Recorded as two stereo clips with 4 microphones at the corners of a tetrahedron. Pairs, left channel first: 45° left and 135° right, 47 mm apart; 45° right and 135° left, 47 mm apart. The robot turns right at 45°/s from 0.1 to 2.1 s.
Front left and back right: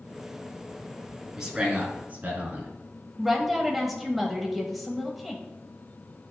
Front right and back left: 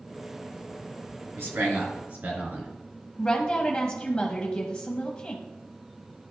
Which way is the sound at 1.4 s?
140° left.